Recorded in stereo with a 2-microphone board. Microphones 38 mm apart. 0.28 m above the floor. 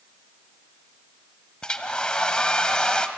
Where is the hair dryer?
20° left (ahead or behind), 1.3 m.